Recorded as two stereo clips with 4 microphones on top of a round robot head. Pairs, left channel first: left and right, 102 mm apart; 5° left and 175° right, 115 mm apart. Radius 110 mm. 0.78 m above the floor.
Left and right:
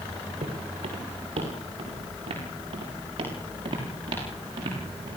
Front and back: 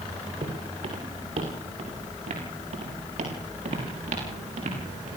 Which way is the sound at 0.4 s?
130° right.